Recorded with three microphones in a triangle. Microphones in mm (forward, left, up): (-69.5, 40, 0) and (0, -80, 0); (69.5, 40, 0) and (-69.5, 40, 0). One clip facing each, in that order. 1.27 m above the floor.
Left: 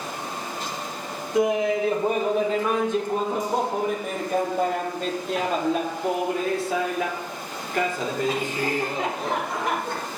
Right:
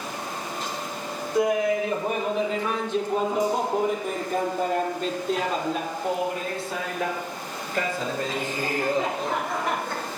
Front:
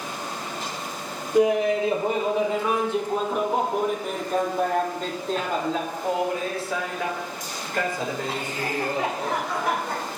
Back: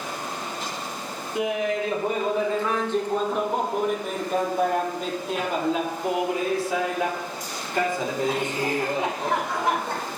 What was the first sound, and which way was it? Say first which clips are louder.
Laughter: left 1 dB, front 6 dB; 50° left.